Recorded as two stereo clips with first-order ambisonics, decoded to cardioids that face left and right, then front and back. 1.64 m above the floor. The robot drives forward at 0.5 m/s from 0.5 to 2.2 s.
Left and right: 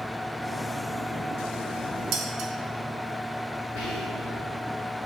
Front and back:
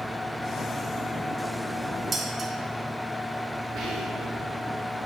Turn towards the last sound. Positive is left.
turn(degrees=130)